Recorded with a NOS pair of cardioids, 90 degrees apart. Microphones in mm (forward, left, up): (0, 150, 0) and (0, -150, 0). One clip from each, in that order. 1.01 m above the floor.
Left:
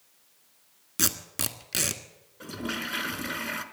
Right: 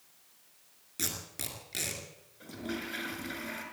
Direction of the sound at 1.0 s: 65° left.